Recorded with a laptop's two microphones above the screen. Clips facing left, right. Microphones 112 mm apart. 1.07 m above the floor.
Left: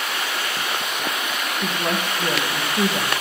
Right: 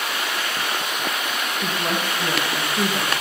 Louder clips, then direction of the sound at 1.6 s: Left 1 dB; 10° left (ahead or behind).